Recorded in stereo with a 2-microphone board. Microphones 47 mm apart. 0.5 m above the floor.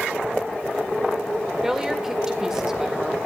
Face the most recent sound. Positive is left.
turn(degrees=-15)  # may be behind; listen again after turning